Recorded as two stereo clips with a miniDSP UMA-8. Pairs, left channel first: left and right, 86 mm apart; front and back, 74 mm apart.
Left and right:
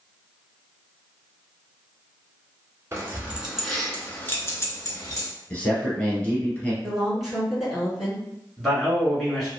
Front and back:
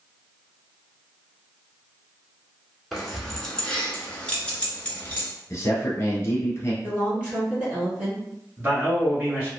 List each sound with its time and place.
2.9 s keys jangling: 90° right, 0.8 m; by 5.3 s 65° left, 1.2 m
5.5 s a man speaking: 20° left, 1.4 m
6.8 s a woman speaking: 175° right, 1.6 m
8.6 s a man speaking: 170° left, 1.5 m